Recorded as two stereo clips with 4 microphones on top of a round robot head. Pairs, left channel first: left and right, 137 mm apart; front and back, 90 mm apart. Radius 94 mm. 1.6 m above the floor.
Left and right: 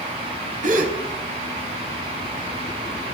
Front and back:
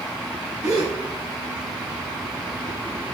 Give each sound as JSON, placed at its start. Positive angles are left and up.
{"t": 0.6, "sound": "a gasp", "azimuth_deg": -115, "distance_m": 1.3}